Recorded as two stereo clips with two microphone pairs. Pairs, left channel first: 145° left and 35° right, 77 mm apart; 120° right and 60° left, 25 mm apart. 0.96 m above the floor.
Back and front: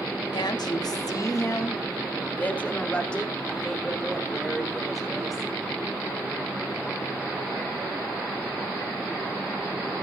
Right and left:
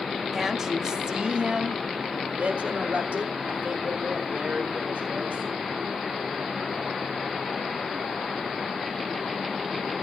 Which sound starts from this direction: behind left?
A woman speaking, at 0.3 s.